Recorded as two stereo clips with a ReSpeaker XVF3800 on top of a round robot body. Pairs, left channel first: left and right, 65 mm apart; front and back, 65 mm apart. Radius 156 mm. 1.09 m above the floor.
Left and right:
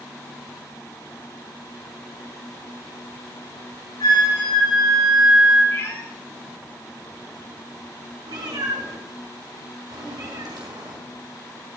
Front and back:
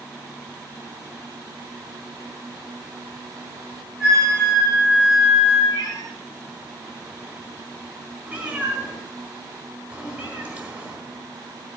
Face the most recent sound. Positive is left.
turn(degrees=-105)